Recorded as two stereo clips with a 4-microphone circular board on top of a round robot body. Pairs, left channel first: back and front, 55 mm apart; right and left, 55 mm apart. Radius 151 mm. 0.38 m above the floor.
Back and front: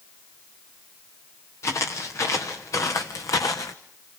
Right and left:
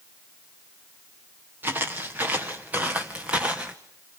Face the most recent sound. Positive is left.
turn(degrees=165)